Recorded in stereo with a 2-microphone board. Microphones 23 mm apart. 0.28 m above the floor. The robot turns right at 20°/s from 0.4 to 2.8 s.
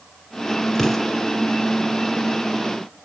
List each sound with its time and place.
0.8 s an explosion: 20° left (ahead or behind), 3.5 m; by 1.1 s 10° left (ahead or behind), 3.5 m